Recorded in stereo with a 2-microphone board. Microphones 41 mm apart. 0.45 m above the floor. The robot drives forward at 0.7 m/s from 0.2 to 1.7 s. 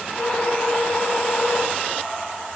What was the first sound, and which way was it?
Only background noise.